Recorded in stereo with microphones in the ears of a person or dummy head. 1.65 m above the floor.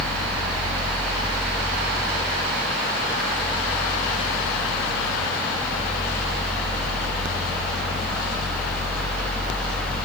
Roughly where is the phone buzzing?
I don't hear a phone buzzing.